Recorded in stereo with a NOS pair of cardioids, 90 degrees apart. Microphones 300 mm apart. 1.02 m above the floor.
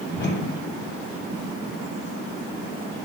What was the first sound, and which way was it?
A whoosh, 40° left.